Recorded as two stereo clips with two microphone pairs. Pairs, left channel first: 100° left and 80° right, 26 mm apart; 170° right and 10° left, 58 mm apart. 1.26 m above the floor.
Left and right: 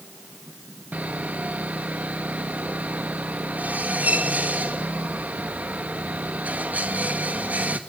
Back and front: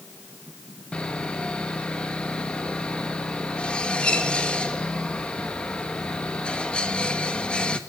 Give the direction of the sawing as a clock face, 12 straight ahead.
3 o'clock.